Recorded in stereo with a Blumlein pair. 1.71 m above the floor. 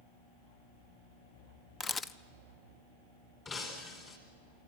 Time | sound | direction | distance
1.8 | a camera shutter | 15° left | 0.6 m
3.5 | breaking glass | 25° left | 4 m